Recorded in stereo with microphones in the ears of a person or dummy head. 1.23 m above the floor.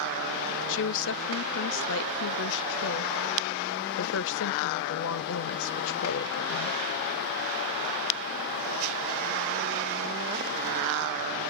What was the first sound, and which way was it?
A woman speaking, 65° left (ahead or behind).